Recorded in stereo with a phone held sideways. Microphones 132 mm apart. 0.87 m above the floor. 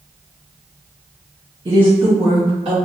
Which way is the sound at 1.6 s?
40° right (ahead or behind).